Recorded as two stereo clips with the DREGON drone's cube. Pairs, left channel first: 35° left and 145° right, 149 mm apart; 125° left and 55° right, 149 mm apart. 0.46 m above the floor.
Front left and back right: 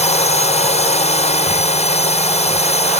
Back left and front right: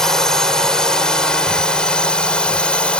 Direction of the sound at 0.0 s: 40° left.